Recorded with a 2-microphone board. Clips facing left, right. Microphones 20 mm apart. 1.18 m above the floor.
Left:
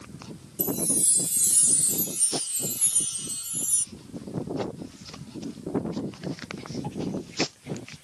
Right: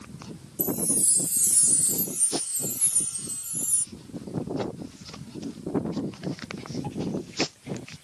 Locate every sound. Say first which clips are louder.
0.6 s a chime: even; 55° left (ahead or behind)